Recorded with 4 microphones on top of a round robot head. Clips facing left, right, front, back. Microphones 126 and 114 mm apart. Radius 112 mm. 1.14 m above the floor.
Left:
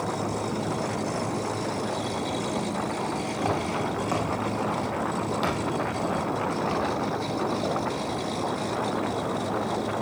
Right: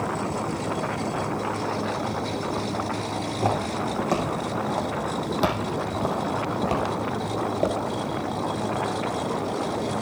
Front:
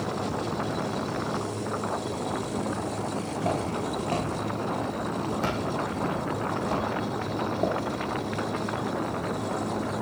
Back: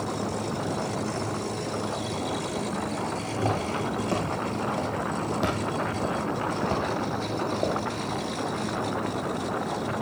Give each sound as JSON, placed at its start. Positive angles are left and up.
{"t": 3.2, "sound": "footsteps", "azimuth_deg": -150, "distance_m": 4.5}